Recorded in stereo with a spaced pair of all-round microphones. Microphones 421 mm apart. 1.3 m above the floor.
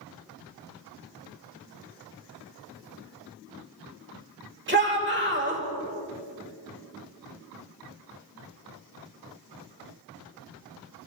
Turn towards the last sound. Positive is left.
turn(degrees=-25)  # may be behind; listen again after turning